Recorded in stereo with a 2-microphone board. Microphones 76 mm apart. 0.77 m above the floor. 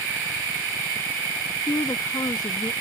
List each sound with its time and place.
1.7 s a woman speaking: 65° left (ahead or behind)